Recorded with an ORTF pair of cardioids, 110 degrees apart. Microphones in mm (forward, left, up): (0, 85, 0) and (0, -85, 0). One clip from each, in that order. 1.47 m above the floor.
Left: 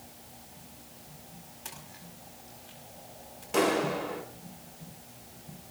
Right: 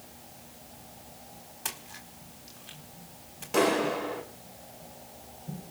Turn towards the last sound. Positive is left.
turn(degrees=-5)